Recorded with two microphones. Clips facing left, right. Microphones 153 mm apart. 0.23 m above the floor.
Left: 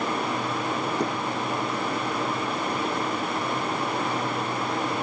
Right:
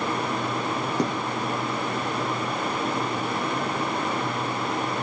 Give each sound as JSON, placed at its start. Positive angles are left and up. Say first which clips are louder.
{"t": 1.0, "sound": "a gunshot", "louder": "right 1 dB", "side_deg": -75, "distance_m": 6.5}